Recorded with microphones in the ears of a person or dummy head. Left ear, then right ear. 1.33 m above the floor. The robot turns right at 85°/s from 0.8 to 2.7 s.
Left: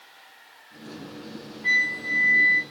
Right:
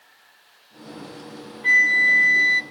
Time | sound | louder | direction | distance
1.6 | a flute | right 7 dB | 155° right | 0.5 m